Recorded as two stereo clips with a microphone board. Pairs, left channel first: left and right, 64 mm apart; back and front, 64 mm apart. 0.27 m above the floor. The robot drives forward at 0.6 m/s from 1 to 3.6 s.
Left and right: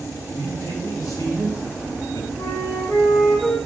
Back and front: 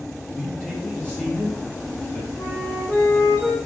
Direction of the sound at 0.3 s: 110° left.